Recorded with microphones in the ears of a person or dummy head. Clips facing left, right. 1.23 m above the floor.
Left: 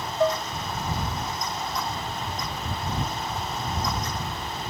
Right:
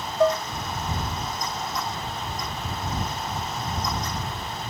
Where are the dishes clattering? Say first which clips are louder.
Right 3 dB; 65° right (ahead or behind).